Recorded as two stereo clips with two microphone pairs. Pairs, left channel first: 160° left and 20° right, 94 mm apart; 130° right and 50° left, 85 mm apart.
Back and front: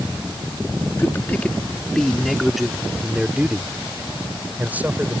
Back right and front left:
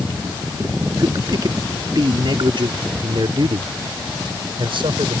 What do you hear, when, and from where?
1.0 s a man speaking: 90° left; by 5.2 s 50° left